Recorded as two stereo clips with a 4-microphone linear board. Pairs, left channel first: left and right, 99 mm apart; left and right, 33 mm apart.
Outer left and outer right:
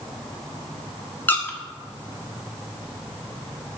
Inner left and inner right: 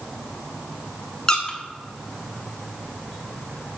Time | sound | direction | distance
1.3 | a squeak | 20° left (ahead or behind) | 0.8 m